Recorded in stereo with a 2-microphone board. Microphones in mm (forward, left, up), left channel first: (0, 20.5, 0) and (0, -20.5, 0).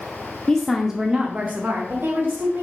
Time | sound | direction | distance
0.5 | a woman speaking | 15° left (ahead or behind) | 0.8 m